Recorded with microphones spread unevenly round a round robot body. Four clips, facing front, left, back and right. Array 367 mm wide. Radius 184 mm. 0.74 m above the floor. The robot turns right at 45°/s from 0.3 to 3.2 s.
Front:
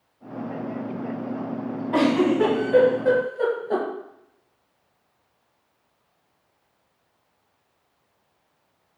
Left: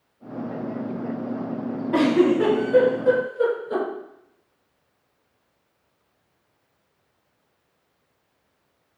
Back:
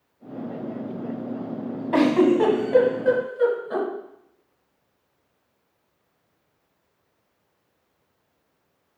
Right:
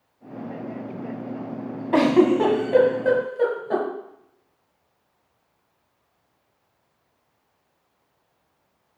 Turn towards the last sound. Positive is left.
turn(degrees=-65)